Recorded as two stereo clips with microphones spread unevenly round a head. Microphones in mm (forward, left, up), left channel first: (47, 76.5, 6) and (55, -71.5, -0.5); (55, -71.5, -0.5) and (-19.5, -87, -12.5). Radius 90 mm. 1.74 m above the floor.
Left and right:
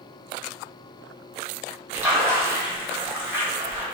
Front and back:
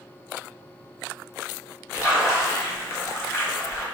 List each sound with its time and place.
1.9 s a splash: 10° right, 0.8 m